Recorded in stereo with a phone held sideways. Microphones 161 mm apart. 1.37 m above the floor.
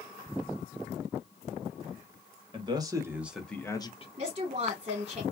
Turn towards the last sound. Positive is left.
turn(degrees=-40)  # may be behind; listen again after turning